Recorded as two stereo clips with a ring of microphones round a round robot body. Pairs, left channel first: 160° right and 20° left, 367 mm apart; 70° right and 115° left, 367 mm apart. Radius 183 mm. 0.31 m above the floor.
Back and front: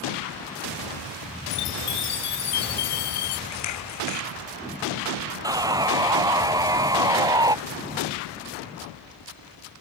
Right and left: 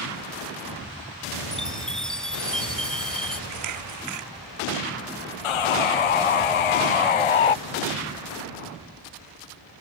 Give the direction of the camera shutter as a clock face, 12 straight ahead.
7 o'clock.